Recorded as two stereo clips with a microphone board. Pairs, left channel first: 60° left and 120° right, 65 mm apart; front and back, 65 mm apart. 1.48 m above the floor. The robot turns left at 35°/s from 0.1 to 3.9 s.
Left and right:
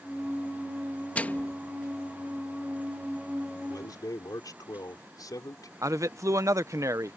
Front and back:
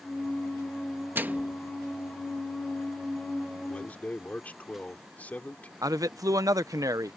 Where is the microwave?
125° left; by 1.6 s 110° left.